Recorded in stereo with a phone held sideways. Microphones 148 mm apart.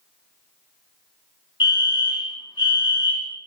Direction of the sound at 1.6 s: 30° left (ahead or behind).